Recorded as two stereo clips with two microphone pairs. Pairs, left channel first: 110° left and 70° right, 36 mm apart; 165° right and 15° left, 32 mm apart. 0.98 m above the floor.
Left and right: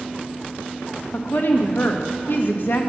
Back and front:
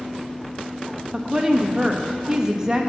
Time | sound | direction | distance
1.1 | a woman speaking | 80° left | 1.1 m